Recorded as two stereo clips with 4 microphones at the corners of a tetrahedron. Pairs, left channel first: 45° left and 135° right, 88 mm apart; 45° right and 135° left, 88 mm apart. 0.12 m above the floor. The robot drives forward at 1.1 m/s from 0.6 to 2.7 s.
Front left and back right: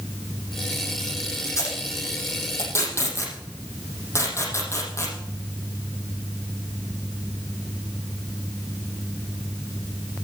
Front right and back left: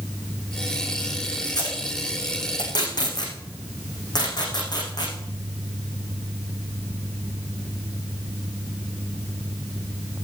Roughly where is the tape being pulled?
Ahead.